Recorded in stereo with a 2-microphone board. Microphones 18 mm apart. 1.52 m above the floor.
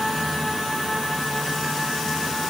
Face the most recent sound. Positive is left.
No sound to turn to.